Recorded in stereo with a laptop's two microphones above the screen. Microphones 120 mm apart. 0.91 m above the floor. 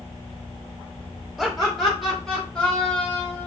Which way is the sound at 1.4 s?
Centre (ahead or behind).